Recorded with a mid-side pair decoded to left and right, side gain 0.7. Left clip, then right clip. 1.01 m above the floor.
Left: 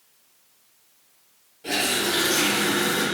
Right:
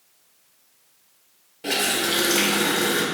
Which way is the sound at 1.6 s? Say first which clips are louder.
Right 1 dB; 45° right.